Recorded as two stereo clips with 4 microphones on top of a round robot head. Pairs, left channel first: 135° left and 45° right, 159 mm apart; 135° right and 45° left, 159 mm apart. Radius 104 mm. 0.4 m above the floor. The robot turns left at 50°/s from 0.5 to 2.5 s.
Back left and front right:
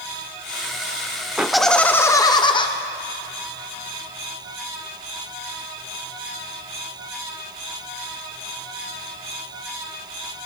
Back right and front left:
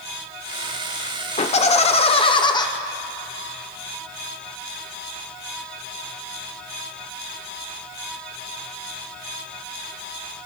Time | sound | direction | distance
1.4 | laughter | 125° right | 1.0 m